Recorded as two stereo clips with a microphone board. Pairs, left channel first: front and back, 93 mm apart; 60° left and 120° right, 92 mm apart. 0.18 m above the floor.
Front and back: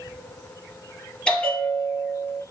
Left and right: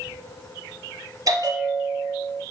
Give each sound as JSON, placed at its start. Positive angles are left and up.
{"t": 1.3, "sound": "a bell", "azimuth_deg": -75, "distance_m": 2.0}